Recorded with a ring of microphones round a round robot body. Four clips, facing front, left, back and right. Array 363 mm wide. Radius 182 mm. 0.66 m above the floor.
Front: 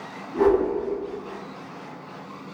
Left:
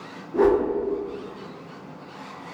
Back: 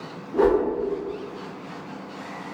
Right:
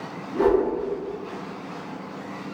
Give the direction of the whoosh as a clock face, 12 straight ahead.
7 o'clock.